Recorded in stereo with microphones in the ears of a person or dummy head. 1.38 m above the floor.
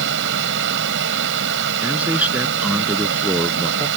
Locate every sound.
0.0 s a fan: 70° right (ahead or behind)
1.8 s a man speaking: 10° right (ahead or behind)